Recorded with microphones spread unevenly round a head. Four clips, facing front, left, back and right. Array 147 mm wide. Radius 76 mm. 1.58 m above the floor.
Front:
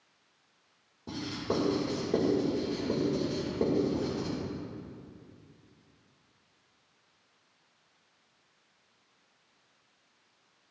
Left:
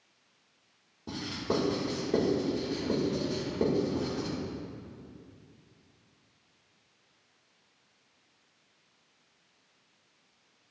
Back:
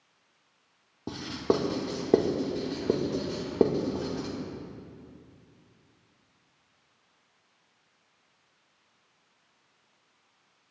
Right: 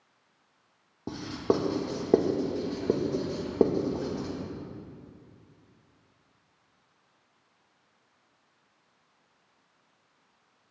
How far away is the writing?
About 1.8 m.